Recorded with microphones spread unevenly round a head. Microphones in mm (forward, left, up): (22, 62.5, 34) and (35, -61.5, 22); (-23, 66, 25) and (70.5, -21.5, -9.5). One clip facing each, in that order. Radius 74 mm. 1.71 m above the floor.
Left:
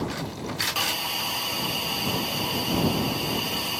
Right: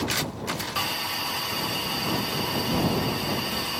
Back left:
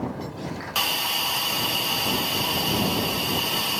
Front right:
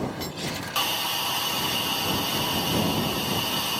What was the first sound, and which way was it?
A hiss, 115° left.